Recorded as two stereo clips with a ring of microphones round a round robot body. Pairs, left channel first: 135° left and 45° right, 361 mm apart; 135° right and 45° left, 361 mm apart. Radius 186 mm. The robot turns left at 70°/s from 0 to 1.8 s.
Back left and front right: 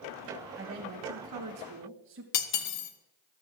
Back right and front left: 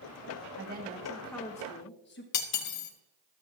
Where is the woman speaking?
Straight ahead, 1.4 m; by 2.2 s 85° right, 1.4 m.